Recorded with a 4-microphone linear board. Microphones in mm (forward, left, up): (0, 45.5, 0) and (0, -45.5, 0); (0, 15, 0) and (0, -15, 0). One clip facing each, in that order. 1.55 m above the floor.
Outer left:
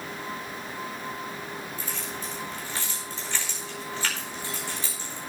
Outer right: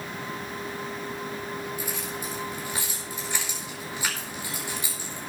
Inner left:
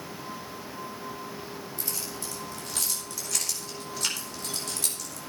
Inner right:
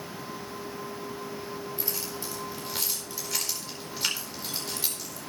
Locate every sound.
1.8 s keys jangling: 15° right (ahead or behind), 4.5 m